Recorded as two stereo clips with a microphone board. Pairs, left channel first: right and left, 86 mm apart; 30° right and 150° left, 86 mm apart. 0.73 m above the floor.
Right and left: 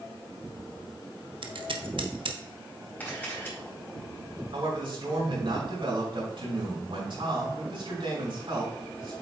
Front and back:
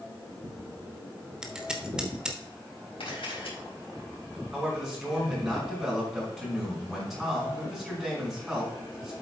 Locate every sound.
1.4 s scissors: 70° left, 1.1 m
3.0 s a camera shutter: 20° right, 4 m
4.5 s a man speaking: 65° left, 5 m